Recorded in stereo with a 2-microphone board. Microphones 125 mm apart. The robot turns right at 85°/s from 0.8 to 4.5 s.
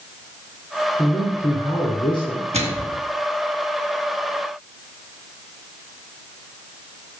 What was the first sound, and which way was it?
A man speaking, 35° left.